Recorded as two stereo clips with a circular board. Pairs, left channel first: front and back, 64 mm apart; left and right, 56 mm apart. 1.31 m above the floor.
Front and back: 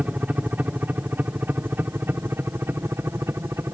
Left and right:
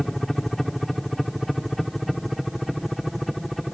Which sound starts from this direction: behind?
A helicopter, at 0.0 s.